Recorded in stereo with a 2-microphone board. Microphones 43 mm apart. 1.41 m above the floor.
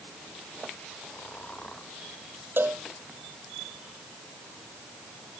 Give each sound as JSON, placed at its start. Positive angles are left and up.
{"t": 1.0, "sound": "snoring", "side_deg": 25}
{"t": 2.6, "sound": "a cowbell", "side_deg": -60}